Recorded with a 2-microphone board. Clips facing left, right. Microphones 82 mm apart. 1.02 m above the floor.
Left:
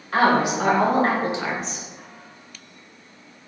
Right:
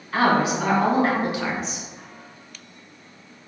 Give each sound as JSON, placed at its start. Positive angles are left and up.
{"t": 0.1, "sound": "a woman speaking", "side_deg": 65, "distance_m": 1.5}